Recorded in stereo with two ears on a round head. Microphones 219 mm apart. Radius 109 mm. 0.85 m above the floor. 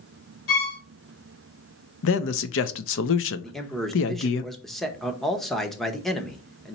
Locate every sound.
0.5 s a violin: 60° left (ahead or behind), 2.5 m
2.0 s a man speaking: 60° left (ahead or behind), 0.6 m
3.4 s a man speaking: centre (ahead or behind), 0.8 m